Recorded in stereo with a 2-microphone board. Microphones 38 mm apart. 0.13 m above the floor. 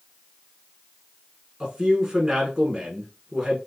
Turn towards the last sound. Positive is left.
turn(degrees=-10)  # may be behind; listen again after turning